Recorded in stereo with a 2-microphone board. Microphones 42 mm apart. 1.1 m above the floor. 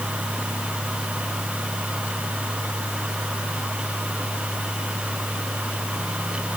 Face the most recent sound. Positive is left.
No sound to turn to.